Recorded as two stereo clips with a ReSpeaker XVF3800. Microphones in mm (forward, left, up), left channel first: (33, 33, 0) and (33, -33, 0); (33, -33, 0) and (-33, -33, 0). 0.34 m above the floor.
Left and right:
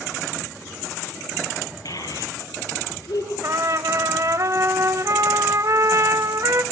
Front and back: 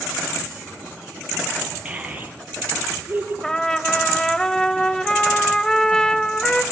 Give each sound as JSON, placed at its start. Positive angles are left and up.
{"t": 1.9, "sound": "a child speaking", "azimuth_deg": 105, "distance_m": 6.0}
{"t": 3.4, "sound": "a trumpet", "azimuth_deg": -80, "distance_m": 0.7}